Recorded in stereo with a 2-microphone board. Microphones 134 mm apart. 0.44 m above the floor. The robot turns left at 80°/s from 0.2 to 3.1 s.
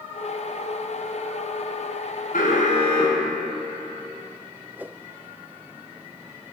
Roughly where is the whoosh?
Centre.